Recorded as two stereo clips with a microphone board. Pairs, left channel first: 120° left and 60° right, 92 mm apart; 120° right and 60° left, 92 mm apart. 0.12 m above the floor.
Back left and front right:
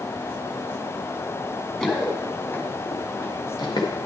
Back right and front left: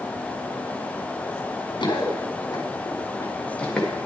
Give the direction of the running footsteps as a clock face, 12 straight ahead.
5 o'clock.